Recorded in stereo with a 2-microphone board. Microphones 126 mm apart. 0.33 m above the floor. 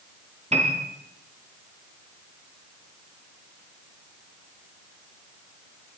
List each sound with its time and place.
0.5 s a piano: 60° right (ahead or behind), 4 m